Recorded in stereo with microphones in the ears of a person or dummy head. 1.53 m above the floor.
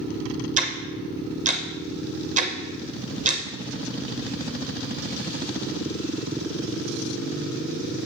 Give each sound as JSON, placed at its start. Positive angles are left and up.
{"t": 0.6, "sound": "ticking", "side_deg": -40, "distance_m": 0.6}